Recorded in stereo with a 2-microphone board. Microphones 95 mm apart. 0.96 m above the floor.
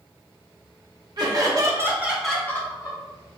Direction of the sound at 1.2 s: 45° right (ahead or behind).